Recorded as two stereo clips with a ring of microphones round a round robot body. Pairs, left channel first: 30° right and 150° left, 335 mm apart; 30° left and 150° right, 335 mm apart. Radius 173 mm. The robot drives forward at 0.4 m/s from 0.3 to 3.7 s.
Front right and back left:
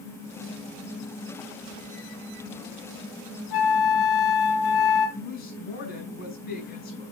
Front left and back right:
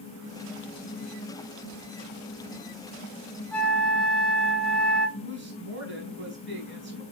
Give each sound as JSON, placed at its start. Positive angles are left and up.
{"t": 3.5, "sound": "a flute", "azimuth_deg": -55, "distance_m": 1.3}
{"t": 5.2, "sound": "a woman speaking", "azimuth_deg": -95, "distance_m": 4.0}